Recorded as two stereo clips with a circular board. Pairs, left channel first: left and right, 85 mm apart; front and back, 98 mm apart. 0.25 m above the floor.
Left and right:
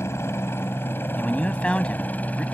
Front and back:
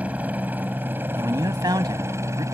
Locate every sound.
0.0 s a helicopter: 115° left; by 2.5 s 150° left
1.2 s a man speaking: 160° left